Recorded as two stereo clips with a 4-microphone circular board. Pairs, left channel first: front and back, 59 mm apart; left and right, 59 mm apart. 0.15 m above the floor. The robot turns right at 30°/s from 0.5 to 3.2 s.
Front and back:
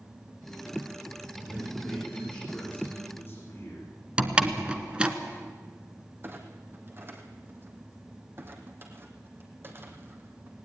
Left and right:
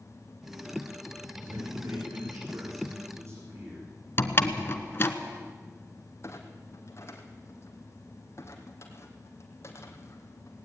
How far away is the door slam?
About 1.4 m.